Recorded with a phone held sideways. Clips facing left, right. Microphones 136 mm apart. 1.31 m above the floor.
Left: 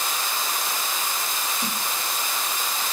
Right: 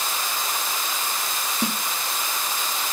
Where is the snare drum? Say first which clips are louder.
Right 8 dB; 75° right (ahead or behind), 3 m.